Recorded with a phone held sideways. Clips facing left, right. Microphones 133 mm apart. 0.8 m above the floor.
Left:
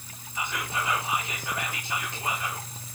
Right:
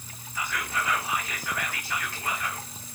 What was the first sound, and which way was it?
Whispering, 20° left (ahead or behind).